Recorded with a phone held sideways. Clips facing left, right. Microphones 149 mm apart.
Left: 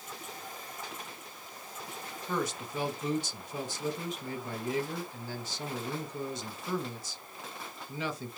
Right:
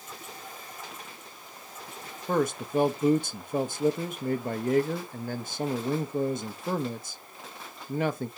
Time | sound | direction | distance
2.3 | a man speaking | 50° right (ahead or behind) | 0.8 m